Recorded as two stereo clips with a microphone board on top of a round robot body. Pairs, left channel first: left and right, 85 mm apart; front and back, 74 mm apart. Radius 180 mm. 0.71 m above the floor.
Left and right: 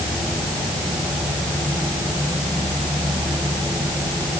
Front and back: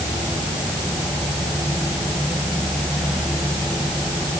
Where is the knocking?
No knocking in this recording.